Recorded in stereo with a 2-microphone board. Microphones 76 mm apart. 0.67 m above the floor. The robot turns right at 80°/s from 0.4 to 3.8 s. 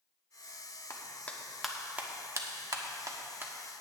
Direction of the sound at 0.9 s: 45° left (ahead or behind).